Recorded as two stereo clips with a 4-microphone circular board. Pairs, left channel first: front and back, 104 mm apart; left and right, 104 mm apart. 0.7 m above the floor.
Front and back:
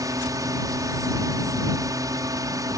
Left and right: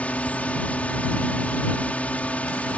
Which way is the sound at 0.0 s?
160° left.